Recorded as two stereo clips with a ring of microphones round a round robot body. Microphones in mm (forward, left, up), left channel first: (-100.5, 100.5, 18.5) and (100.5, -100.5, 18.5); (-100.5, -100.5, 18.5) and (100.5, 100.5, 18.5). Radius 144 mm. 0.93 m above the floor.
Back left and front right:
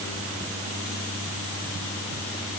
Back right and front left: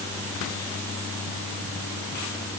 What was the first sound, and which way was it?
Only background noise.